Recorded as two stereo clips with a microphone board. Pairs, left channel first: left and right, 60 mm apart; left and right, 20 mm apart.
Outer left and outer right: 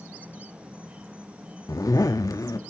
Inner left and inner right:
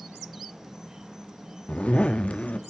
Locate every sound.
0.0 s an insect: 20° right (ahead or behind), 1.8 m
1.7 s a zipper: 80° left, 1.1 m